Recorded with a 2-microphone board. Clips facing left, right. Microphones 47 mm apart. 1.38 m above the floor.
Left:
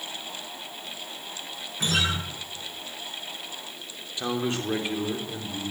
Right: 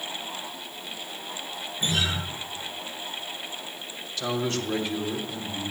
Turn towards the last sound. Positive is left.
turn(degrees=20)  # may be behind; listen again after turning